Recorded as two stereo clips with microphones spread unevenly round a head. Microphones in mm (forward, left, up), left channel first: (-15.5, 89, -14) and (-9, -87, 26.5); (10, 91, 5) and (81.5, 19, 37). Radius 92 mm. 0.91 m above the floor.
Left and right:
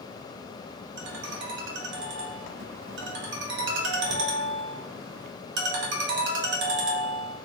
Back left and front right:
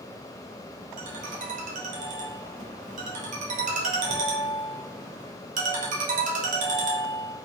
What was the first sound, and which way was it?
A ringtone, 55° right.